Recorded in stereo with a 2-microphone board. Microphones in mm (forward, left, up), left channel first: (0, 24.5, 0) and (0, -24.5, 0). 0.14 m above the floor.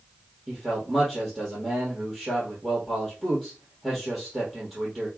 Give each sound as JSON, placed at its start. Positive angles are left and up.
{"t": 0.5, "sound": "a man speaking", "side_deg": -10, "distance_m": 2.5}